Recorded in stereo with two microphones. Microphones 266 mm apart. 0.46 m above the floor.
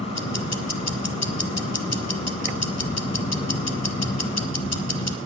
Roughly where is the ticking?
Left.